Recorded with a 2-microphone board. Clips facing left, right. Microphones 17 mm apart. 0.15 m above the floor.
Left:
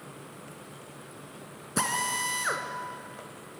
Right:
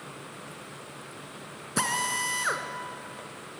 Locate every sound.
1.8 s a drill: 15° right (ahead or behind), 2 m